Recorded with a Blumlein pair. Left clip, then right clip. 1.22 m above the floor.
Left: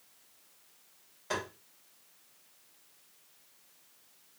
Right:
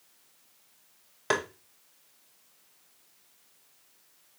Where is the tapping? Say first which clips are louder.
Right 7 dB; 50° right, 0.7 m.